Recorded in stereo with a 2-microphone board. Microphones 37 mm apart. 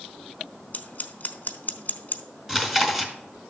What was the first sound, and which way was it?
Scissors, 45° left (ahead or behind).